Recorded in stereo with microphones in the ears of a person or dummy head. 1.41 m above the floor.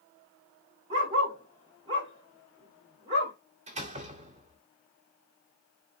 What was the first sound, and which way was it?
A dog barking, 25° right (ahead or behind).